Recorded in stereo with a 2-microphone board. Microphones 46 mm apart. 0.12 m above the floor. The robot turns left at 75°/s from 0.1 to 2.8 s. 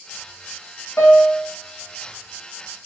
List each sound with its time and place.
1.0 s a piano: 65° left, 5.5 m; by 1.5 s 25° left, 5.5 m